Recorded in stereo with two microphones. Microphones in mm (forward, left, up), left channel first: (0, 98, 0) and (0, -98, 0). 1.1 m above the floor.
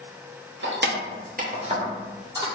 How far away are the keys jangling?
About 0.6 m.